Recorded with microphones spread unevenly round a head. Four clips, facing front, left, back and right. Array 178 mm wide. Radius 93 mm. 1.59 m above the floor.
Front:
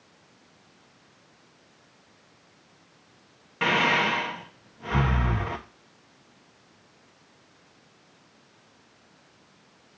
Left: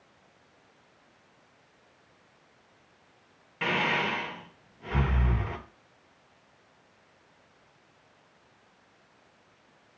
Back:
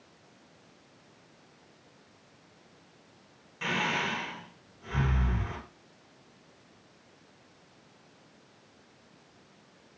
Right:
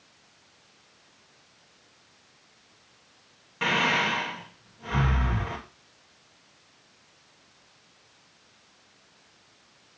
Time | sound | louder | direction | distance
3.6 | breathing | right 3 dB, front 8 dB | 10° right | 1.3 m